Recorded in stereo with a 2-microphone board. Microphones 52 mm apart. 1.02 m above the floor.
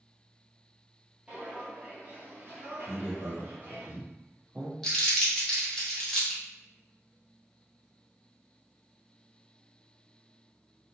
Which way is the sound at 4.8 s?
10° left (ahead or behind).